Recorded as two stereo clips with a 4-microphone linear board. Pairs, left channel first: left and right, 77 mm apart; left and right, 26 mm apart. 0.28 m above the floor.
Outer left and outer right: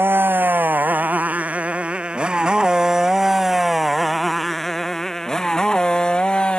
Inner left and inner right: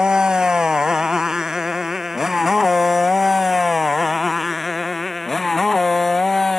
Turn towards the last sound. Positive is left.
turn(degrees=15)  # may be behind; listen again after turning